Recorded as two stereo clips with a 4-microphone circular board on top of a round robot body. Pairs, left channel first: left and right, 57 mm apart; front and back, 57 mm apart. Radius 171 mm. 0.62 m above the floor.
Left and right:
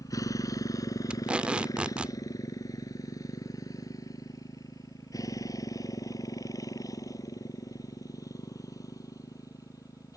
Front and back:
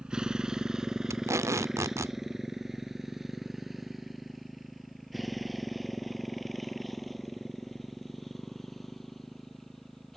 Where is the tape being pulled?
160° right.